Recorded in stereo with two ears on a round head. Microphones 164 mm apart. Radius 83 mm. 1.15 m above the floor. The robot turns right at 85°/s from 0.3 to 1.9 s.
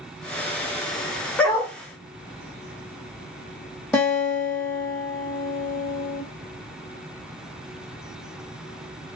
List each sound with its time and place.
1.4 s a dog barking: 170° left, 1.3 m; by 1.7 s 160° right, 1.3 m
3.9 s a guitar: 5° left (ahead or behind), 1.3 m